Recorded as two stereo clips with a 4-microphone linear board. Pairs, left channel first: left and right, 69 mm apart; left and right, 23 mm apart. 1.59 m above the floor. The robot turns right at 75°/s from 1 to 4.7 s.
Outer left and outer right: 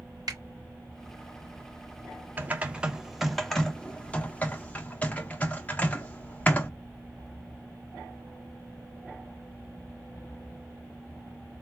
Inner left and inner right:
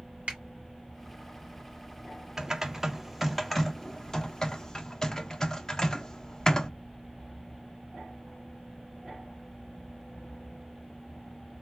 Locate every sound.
0.3 s a finger snap: 75° right (ahead or behind), 3 m
2.4 s typing on a keyboard: 20° right (ahead or behind), 0.8 m; by 6.7 s 25° left (ahead or behind), 0.8 m